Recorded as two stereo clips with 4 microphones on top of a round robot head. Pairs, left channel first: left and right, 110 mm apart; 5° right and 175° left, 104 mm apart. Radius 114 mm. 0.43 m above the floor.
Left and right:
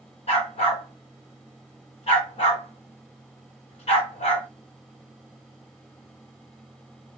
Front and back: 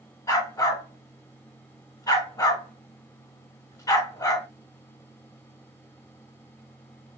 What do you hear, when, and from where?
0.3 s a dog barking: 55° left, 2 m